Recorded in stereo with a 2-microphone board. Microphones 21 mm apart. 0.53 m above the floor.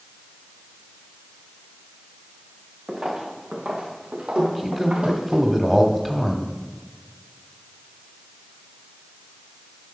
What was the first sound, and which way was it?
Footsteps, 35° right (ahead or behind).